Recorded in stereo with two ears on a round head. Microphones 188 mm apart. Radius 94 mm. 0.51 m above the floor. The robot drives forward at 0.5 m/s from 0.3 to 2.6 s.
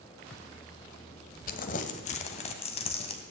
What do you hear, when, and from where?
1.5 s crumpling: 45° left (ahead or behind), 1.3 m; by 3.2 s 30° left (ahead or behind), 1.8 m